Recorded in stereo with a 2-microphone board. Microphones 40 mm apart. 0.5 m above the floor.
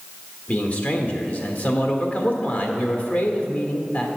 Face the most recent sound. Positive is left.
turn(degrees=40)  # may be behind; listen again after turning